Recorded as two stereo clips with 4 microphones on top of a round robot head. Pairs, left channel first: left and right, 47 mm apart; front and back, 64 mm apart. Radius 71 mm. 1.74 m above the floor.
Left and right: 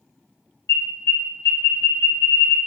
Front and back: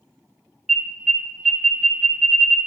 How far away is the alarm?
About 0.7 m.